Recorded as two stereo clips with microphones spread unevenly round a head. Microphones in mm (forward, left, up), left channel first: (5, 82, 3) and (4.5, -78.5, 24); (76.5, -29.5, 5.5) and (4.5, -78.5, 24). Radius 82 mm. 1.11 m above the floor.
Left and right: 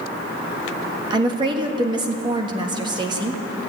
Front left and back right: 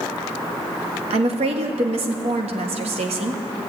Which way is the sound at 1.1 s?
155° right.